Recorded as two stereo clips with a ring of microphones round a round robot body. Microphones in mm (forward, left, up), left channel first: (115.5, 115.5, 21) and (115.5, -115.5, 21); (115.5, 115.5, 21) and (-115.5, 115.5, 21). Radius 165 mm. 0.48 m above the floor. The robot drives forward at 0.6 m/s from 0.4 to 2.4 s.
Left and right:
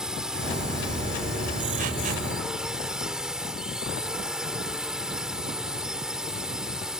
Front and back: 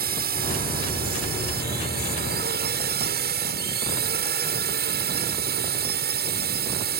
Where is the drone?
175° right.